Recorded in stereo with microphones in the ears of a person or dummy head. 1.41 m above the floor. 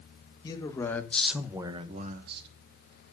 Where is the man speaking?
25° left (ahead or behind), 1.8 m; by 2.5 s 60° right (ahead or behind), 1.2 m.